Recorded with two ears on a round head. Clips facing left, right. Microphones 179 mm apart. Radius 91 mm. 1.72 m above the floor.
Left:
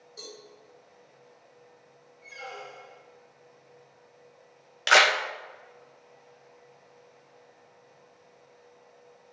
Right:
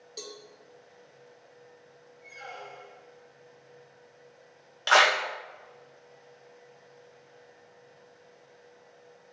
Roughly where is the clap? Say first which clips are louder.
Even; left.